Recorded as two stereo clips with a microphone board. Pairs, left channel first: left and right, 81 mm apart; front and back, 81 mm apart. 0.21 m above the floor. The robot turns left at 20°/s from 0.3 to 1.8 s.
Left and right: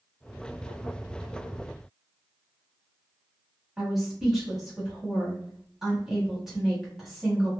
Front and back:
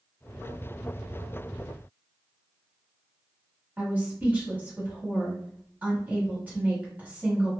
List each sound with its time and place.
3.8 s a woman speaking: 165° right, 1.4 m